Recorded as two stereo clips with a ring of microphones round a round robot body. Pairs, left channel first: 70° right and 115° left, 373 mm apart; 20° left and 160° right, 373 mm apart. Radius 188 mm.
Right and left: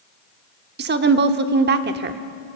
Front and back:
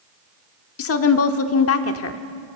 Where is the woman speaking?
60° left, 1.0 m.